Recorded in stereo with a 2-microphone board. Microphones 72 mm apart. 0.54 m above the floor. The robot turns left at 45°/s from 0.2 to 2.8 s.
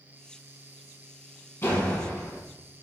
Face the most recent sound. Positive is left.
turn(degrees=-15)